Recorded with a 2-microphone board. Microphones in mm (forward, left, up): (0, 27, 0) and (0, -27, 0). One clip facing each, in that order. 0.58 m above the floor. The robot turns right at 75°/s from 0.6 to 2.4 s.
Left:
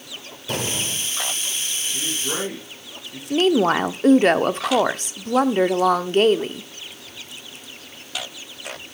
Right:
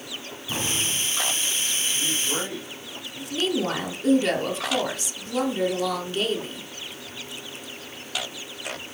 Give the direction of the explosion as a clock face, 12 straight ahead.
8 o'clock.